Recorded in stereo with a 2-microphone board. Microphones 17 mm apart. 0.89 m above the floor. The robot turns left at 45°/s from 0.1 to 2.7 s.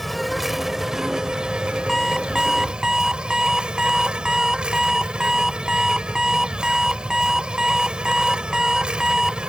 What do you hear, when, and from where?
0.0 s an insect: 5° left; by 9.5 s 110° right
1.9 s an alarm clock: 5° left; by 9.4 s 30° right